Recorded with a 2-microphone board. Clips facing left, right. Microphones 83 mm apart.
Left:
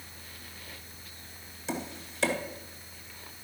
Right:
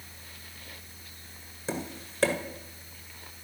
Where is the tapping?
45° right (ahead or behind), 1.4 m.